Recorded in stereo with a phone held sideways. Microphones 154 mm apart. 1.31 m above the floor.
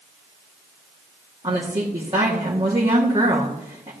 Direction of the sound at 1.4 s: 35° right (ahead or behind).